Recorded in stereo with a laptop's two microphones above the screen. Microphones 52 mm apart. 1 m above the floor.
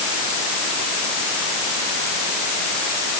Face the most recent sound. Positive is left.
No sound to turn to.